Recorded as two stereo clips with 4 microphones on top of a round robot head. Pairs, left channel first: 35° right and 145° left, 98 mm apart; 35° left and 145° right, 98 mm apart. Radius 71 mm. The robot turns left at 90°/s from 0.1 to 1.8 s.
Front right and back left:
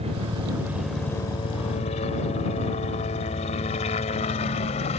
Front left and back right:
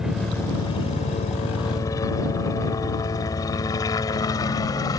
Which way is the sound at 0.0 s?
130° left.